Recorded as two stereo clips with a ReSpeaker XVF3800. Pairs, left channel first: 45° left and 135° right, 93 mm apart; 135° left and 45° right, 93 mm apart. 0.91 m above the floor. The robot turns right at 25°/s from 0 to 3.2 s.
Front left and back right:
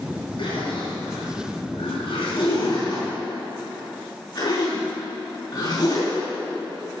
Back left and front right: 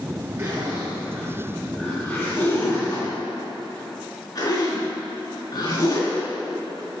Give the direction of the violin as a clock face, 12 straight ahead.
I don't hear a violin.